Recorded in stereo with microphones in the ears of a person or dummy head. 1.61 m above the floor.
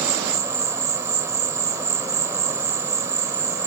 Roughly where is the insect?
Centre.